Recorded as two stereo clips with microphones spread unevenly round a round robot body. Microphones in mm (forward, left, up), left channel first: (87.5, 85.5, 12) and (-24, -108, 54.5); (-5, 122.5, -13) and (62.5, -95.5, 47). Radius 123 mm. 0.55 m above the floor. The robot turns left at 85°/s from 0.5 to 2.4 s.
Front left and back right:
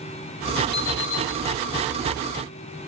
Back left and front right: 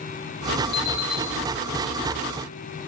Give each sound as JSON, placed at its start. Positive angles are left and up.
{"t": 0.7, "sound": "an alarm clock", "azimuth_deg": 130, "distance_m": 8.5}